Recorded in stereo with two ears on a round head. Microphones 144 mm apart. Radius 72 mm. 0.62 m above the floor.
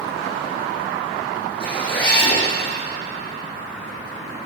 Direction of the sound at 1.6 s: 30° left (ahead or behind).